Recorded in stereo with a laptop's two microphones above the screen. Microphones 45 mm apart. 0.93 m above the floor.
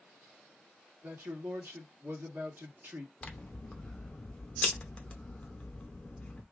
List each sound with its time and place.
1.0 s a man speaking: 50° right (ahead or behind), 1.5 m
3.2 s scissors: 25° left (ahead or behind), 0.8 m